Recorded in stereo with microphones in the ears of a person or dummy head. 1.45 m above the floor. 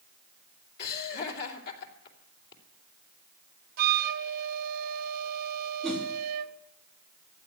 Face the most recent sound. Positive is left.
turn(degrees=5)  # may be behind; listen again after turning